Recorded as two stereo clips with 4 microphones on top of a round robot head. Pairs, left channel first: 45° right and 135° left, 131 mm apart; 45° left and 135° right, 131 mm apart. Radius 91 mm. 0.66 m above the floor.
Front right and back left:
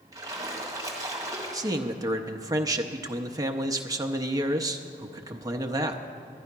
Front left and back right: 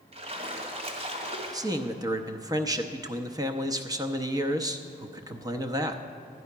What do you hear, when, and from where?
0.1 s a splash: 165° right, 1.7 m
1.5 s a man speaking: straight behind, 0.7 m